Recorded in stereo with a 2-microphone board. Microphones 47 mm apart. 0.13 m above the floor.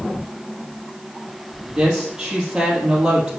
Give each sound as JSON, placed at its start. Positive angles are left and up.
{"t": 1.6, "sound": "a woman speaking", "side_deg": -20, "distance_m": 3.5}